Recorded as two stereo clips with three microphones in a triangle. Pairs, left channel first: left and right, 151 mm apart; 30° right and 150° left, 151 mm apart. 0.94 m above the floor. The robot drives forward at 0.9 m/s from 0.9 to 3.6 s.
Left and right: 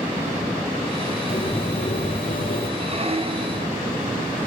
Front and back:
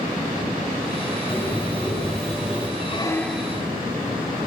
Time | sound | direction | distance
1.3 | a bird | 45° left | 3 m
2.8 | a squeak | 55° right | 0.7 m